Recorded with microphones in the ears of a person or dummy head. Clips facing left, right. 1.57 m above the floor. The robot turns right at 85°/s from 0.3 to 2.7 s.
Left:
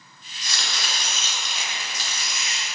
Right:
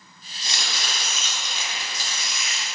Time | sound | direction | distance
0.4 | chopping | 30° right | 2 m